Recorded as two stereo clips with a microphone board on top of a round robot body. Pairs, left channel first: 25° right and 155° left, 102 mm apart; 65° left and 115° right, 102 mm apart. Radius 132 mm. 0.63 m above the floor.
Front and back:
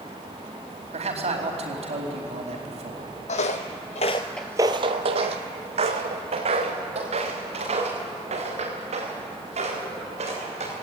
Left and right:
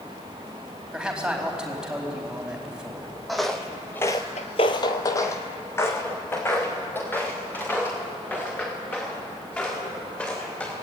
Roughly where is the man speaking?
Behind.